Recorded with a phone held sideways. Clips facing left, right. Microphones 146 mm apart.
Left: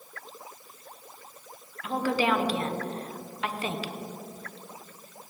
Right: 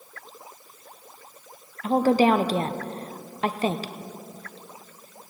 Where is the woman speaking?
40° right (ahead or behind), 0.8 m.